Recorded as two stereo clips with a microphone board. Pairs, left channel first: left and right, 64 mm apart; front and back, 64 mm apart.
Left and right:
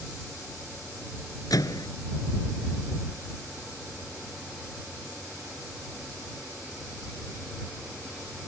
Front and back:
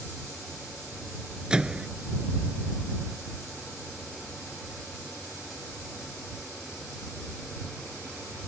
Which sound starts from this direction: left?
A microwave, at 1.5 s.